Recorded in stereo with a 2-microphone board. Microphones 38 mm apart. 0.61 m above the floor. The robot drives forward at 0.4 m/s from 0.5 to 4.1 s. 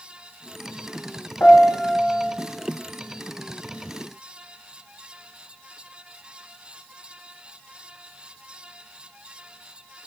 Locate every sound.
1.4 s a piano: 60° left (ahead or behind), 1.9 m; by 2.3 s 55° left (ahead or behind), 2 m